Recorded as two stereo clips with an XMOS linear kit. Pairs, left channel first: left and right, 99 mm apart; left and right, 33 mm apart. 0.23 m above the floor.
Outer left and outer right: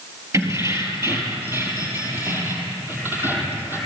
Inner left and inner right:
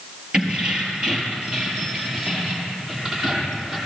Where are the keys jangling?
30° right (ahead or behind), 4 m; by 3.8 s 20° right (ahead or behind), 6.5 m.